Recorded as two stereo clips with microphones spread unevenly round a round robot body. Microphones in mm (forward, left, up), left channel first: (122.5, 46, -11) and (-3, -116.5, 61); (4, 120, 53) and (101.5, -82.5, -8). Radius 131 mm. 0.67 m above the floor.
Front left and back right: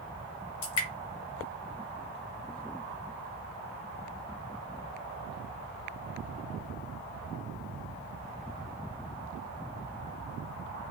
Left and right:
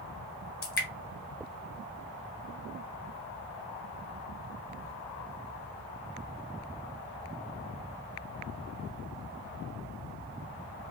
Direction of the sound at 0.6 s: 75° left.